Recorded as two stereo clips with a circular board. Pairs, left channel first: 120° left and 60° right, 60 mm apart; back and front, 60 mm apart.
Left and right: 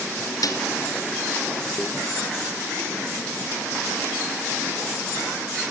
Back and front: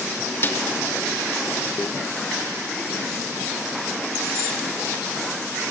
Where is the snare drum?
130° left, 2.0 m.